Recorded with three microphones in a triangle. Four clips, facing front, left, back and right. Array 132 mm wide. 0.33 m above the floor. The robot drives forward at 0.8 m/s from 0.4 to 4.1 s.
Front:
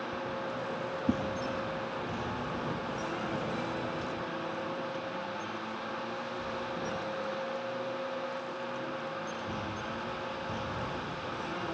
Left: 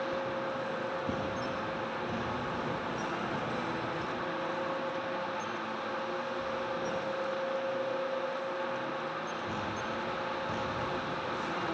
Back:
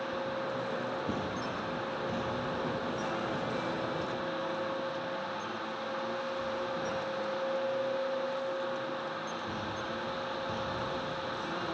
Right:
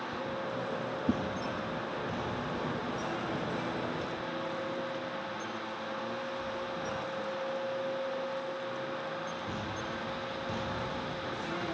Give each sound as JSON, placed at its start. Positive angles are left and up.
{"t": 1.1, "sound": "a whoosh", "azimuth_deg": -35, "distance_m": 1.5}